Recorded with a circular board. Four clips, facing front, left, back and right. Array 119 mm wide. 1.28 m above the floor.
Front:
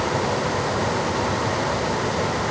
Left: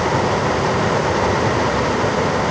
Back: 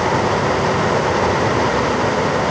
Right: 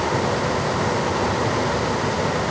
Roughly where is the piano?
I don't hear a piano.